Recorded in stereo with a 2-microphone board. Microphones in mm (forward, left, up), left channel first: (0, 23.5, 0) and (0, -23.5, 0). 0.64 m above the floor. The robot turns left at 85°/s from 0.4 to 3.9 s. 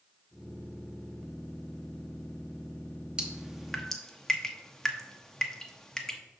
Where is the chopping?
I don't hear chopping.